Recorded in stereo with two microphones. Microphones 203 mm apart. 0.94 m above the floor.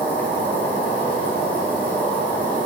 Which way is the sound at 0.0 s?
10° left (ahead or behind).